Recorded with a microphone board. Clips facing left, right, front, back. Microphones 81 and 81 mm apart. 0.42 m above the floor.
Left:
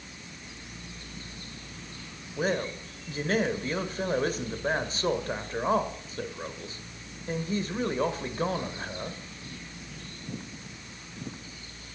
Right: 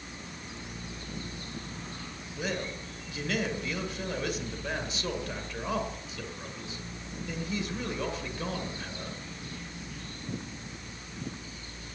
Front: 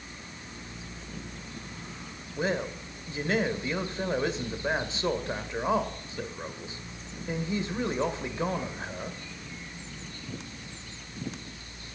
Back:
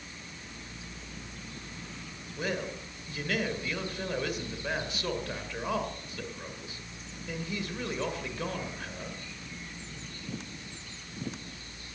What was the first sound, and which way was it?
A man speaking, 55° left.